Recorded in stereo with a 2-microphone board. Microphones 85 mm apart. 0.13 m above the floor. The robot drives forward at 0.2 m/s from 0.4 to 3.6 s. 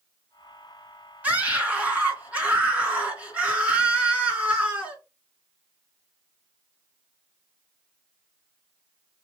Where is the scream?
15° right (ahead or behind), 1.5 m.